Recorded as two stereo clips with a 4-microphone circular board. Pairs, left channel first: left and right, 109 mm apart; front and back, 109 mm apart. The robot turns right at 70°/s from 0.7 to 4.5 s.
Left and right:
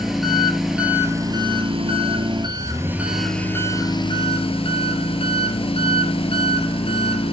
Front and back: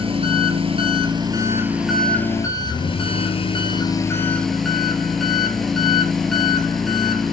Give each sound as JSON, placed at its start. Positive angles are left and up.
{"t": 0.0, "sound": "an engine running", "azimuth_deg": -175, "distance_m": 2.0}